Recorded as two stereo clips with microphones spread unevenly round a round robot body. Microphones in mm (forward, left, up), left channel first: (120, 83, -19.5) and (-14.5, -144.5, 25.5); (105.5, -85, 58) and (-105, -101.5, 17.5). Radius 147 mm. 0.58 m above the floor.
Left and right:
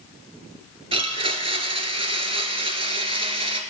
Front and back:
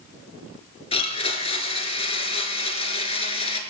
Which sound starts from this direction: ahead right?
A blender, at 0.9 s.